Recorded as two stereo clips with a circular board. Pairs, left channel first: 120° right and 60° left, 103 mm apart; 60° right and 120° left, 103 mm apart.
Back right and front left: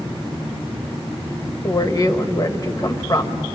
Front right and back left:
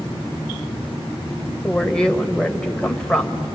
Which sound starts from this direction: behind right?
A woman speaking, at 1.6 s.